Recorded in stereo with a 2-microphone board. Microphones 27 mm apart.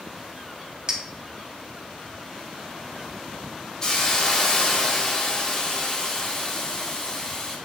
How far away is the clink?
About 0.7 m.